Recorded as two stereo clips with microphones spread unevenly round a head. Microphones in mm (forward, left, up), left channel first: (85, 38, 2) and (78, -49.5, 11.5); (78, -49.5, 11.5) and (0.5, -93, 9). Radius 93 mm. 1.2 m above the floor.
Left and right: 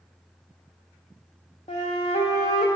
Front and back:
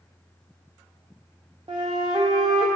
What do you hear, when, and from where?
1.7 s a flute: 140° left, 0.5 m